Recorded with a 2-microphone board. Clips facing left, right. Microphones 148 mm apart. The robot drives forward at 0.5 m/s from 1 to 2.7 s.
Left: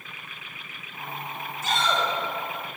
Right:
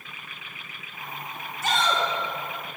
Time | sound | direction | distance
1.6 | a shout | 80° right | 3.5 m